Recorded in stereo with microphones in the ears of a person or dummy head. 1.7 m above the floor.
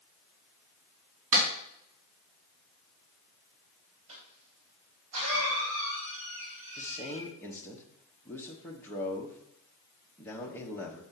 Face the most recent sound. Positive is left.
turn(degrees=10)  # may be behind; listen again after turning